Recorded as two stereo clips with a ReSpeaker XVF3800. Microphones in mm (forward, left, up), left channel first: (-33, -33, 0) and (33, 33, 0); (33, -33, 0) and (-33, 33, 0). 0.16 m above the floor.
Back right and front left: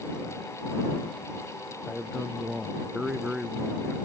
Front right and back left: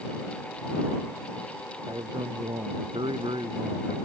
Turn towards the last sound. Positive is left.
turn(degrees=120)